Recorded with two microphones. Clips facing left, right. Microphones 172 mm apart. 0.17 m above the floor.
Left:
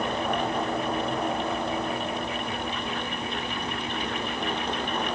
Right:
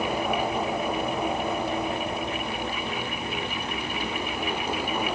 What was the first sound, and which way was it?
Only background noise.